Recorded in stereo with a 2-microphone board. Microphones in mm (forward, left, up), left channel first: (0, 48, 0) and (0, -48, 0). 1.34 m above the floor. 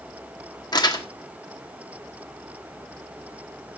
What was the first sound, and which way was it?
Crumpling, 45° left (ahead or behind).